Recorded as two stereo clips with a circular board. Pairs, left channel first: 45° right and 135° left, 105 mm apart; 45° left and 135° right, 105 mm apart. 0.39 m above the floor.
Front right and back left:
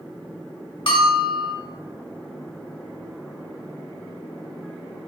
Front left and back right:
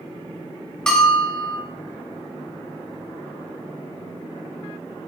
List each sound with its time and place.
0.9 s a bell: 35° right, 1.5 m